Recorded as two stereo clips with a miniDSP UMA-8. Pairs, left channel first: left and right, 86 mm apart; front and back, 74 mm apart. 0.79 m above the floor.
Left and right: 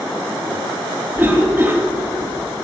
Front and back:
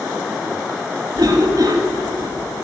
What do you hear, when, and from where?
1.2 s a cough: 155° right, 1.6 m